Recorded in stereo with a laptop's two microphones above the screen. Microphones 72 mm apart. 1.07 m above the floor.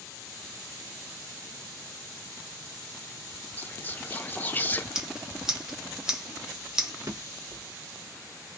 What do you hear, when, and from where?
3.6 s whispering: 25° left (ahead or behind), 0.6 m
5.0 s scissors: 10° right (ahead or behind), 1.0 m
7.0 s a drawer: 45° right (ahead or behind), 1.0 m